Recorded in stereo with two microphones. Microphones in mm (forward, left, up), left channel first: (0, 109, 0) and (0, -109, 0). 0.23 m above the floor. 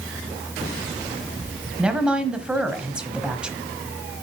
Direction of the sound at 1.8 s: 5° right (ahead or behind).